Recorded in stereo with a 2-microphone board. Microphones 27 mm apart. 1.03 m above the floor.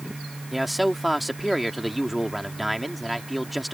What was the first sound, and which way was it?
A man speaking, centre (ahead or behind).